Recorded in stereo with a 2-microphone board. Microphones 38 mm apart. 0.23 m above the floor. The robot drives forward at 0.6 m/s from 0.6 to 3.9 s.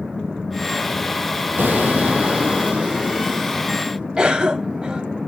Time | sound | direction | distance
1.6 | an explosion | 60° right (ahead or behind) | 1.2 m
4.2 | a cough | 20° right (ahead or behind) | 1.0 m